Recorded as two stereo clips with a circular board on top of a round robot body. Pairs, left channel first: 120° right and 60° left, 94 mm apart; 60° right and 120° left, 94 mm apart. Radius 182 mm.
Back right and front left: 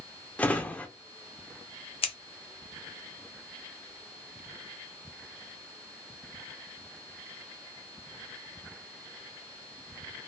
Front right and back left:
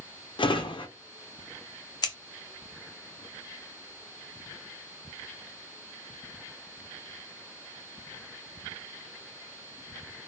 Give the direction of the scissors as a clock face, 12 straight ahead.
4 o'clock.